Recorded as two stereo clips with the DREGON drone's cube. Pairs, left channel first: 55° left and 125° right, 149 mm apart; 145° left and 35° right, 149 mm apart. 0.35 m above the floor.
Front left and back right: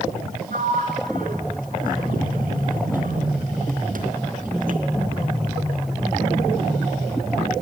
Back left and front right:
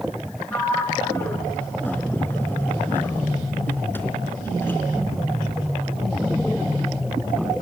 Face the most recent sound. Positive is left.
turn(degrees=-140)